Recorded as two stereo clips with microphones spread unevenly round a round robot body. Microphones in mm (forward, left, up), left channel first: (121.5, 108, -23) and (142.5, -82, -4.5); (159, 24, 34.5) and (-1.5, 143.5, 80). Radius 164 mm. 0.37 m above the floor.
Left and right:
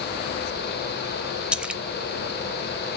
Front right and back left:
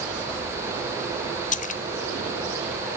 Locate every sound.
1.5 s a splash: 5° left, 0.7 m